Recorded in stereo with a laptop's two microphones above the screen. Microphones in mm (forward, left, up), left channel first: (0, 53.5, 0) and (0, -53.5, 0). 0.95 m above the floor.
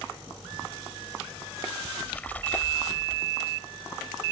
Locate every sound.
1.9 s a splash: 15° left (ahead or behind)